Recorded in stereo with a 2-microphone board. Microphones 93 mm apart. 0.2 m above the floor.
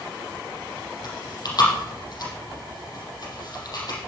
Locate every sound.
1.0 s chewing: 45° left (ahead or behind), 6 m